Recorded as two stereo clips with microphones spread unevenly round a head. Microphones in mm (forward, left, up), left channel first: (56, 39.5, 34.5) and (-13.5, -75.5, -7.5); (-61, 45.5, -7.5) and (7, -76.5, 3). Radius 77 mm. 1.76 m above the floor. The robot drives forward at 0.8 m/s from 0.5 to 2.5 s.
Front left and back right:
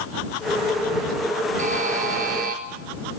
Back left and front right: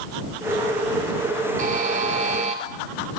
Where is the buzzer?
85° right, 4 m; by 2.6 s 95° right, 4 m.